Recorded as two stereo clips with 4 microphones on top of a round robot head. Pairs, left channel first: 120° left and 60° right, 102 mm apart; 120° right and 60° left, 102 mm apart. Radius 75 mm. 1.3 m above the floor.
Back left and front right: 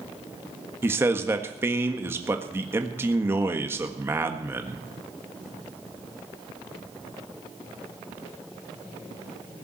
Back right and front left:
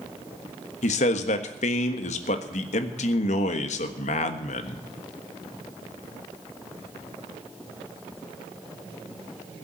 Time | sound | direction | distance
0.8 | a man speaking | 130° right | 1.5 m